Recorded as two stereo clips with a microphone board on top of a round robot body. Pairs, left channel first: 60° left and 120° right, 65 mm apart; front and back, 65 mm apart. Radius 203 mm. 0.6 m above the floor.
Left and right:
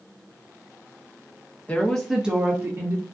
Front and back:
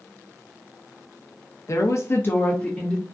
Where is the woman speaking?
Straight ahead, 0.6 m; by 3.0 s 80° right, 0.9 m.